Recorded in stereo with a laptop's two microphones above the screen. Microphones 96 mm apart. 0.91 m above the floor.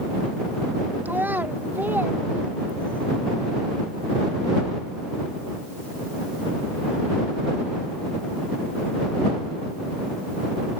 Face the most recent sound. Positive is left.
turn(degrees=-20)  # may be behind; listen again after turning